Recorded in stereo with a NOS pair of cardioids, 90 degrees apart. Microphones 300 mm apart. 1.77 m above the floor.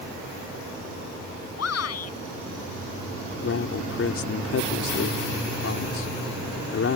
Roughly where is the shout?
Ahead left.